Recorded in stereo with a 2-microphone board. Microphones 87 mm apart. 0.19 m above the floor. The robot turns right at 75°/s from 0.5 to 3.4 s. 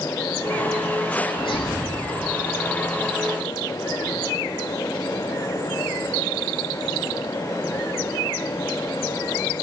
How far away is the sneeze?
About 7.5 m.